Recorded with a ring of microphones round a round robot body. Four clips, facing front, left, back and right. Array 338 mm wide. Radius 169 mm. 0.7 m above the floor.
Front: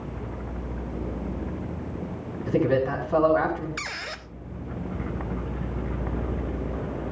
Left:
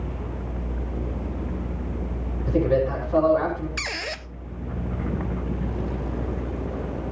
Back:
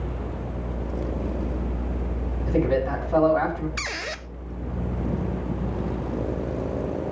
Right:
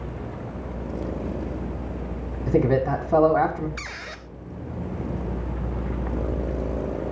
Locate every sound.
2.5 s a man speaking: 75° right, 6 m
3.8 s a squeak: 130° left, 0.8 m